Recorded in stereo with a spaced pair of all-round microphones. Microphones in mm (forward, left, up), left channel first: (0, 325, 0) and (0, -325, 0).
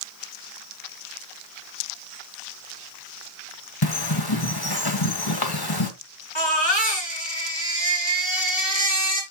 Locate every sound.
3.8 s a bird: 35° left (ahead or behind), 1.7 m
6.3 s a baby crying: 40° left (ahead or behind), 5.5 m